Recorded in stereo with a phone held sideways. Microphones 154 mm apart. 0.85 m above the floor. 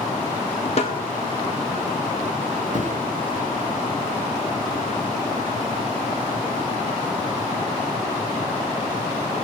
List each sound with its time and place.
0.8 s a snare drum: 45° left (ahead or behind), 2.5 m
2.7 s a thud: 55° right (ahead or behind), 5.5 m